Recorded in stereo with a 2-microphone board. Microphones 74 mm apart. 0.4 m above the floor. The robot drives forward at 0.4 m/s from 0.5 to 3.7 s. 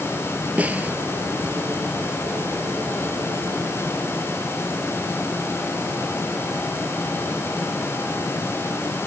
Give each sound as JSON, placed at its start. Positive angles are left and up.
{"t": 0.6, "sound": "a snare drum", "side_deg": -20}